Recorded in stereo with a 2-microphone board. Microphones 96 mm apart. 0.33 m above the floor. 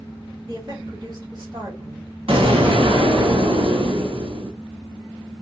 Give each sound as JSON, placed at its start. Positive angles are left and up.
{"t": 0.5, "sound": "a woman speaking", "side_deg": -40, "distance_m": 1.7}
{"t": 2.3, "sound": "an explosion", "side_deg": -65, "distance_m": 1.2}